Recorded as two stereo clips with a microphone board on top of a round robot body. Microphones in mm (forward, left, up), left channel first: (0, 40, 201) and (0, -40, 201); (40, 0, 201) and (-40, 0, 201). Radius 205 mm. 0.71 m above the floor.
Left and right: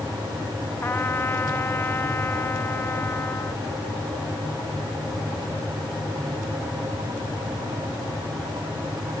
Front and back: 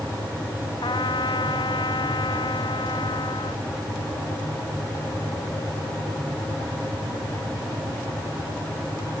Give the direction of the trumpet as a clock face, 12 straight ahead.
11 o'clock.